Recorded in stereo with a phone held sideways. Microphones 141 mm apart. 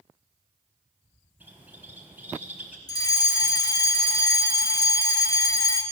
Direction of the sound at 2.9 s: 25° left (ahead or behind).